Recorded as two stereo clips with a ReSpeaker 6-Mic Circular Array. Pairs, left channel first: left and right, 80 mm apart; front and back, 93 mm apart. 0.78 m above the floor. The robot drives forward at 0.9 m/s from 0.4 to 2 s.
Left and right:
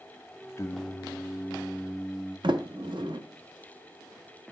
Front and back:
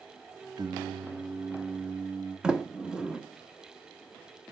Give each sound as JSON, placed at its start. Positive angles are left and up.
{"t": 0.6, "sound": "singing", "azimuth_deg": 140, "distance_m": 0.5}
{"t": 2.4, "sound": "a sliding door", "azimuth_deg": -100, "distance_m": 0.7}